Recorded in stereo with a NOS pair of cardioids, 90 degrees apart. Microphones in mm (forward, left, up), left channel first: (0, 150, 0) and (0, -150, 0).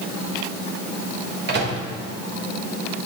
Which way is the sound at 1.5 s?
35° right.